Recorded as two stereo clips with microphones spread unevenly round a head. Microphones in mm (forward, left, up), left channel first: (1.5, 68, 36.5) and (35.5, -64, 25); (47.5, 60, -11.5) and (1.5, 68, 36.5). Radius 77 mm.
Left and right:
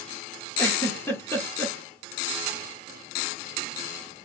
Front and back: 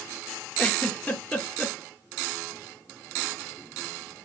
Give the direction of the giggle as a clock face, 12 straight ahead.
11 o'clock.